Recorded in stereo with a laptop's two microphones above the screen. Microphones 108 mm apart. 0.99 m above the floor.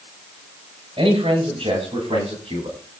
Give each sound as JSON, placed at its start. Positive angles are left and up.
{"t": 1.0, "sound": "a man speaking", "side_deg": -60, "distance_m": 5.0}